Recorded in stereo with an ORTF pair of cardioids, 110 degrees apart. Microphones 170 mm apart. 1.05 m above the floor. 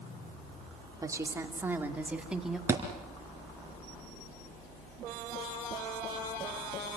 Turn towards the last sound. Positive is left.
turn(degrees=-15)